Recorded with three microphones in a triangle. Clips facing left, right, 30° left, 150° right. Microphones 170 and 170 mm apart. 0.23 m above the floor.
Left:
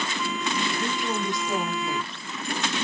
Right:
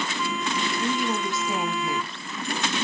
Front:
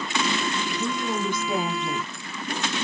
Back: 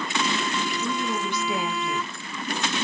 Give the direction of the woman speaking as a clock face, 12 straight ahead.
12 o'clock.